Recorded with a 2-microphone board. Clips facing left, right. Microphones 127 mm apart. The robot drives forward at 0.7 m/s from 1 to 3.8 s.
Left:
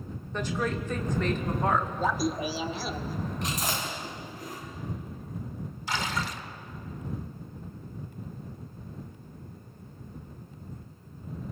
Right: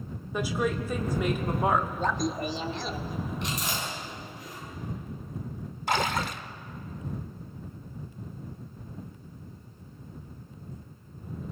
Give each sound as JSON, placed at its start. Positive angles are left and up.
{"t": 0.3, "sound": "a woman speaking", "side_deg": -10, "distance_m": 1.7}
{"t": 2.0, "sound": "laughter", "side_deg": 5, "distance_m": 0.8}
{"t": 3.4, "sound": "chewing", "side_deg": 40, "distance_m": 7.5}
{"t": 5.9, "sound": "a splash", "side_deg": -50, "distance_m": 1.0}